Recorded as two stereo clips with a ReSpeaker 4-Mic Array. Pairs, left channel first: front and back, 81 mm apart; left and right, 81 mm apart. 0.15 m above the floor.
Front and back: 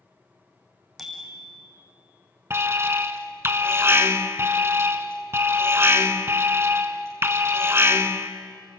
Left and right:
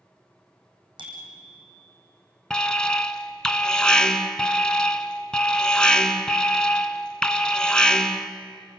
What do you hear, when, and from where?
1.0 s a bicycle bell: 90° right, 5.5 m
2.5 s an alarm: 160° left, 1.5 m